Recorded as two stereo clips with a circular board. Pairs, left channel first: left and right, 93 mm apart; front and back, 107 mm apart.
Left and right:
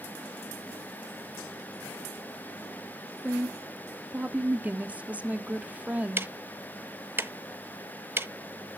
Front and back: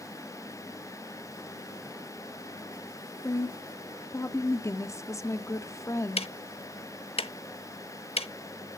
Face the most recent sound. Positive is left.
turn(degrees=-25)